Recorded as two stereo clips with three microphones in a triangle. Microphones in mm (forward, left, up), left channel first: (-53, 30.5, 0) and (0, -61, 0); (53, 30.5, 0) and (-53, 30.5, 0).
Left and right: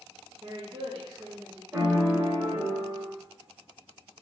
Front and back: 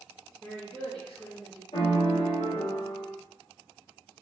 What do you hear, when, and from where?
0.4 s a woman speaking: 65° right, 0.6 m
1.7 s a piano: 5° left, 1.2 m